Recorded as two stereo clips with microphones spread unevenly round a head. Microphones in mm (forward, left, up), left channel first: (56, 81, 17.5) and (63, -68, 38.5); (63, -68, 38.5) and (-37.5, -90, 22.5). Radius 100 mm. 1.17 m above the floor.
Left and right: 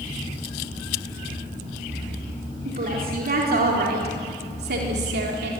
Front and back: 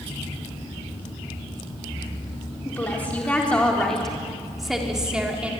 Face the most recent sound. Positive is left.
turn(degrees=-90)